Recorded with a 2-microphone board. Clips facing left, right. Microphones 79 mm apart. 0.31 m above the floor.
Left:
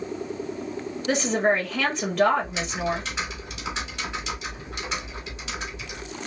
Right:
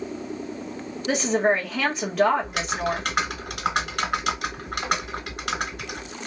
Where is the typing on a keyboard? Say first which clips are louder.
Right 1 dB; 60° right (ahead or behind), 0.9 m.